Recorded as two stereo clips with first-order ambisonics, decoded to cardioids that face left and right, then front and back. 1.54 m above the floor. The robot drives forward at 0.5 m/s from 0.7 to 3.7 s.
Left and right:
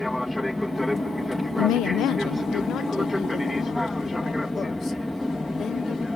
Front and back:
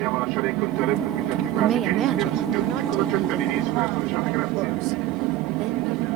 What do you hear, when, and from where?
0.0 s an aircraft: 175° left
1.6 s a woman speaking: 115° left; by 6.1 s 160° left